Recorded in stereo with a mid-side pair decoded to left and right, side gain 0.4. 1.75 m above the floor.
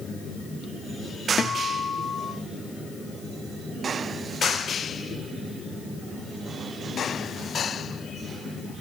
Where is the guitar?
45° left, 1.7 m.